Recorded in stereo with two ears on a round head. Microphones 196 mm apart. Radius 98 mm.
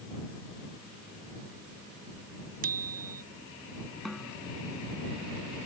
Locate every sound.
2.6 s a bicycle bell: 40° right (ahead or behind)
4.0 s a snare drum: centre (ahead or behind)